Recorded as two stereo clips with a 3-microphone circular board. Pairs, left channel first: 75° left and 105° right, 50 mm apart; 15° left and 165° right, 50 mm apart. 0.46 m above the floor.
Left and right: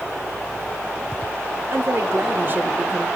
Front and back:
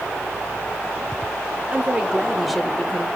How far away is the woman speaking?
About 1.7 m.